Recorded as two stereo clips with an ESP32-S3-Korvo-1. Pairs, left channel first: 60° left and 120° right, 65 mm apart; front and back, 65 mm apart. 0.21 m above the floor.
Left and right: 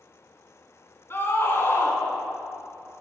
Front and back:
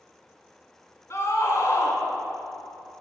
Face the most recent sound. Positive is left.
turn(degrees=25)